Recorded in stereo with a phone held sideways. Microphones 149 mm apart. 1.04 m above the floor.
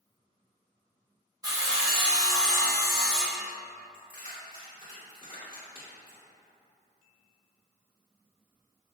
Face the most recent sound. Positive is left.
turn(degrees=65)  # may be behind; listen again after turning